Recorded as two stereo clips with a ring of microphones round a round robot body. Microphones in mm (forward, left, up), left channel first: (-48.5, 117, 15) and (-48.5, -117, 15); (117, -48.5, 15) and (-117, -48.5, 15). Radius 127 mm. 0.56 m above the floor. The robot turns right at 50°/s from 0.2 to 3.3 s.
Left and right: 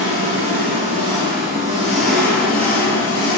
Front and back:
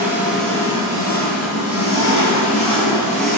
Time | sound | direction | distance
0.0 | an engine running | 100° right | 6.5 m